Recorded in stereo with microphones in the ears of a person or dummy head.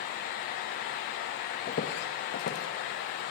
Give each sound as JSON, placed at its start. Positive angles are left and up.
{"t": 1.7, "sound": "footsteps", "side_deg": 25, "distance_m": 1.2}